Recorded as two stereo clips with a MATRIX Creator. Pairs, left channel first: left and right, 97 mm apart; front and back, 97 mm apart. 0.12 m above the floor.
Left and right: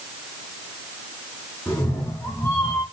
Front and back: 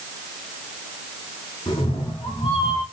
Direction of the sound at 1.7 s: 25° left.